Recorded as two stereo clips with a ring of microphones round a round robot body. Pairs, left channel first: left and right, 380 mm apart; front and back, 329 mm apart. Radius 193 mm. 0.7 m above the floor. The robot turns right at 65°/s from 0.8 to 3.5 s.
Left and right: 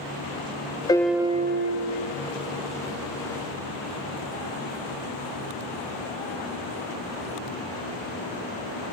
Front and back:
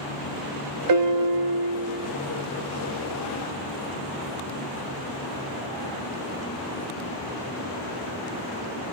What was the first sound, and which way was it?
A piano, 170° left.